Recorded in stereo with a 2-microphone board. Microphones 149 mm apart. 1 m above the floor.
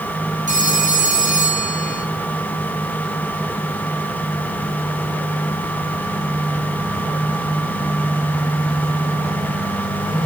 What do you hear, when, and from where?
0.5 s a phone ringing: 60° right (ahead or behind), 3 m